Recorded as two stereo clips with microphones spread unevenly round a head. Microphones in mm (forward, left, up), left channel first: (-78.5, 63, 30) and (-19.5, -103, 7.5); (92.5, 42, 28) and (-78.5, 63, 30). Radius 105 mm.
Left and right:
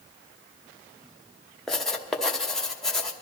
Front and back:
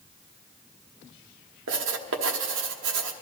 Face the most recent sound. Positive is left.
turn(degrees=-165)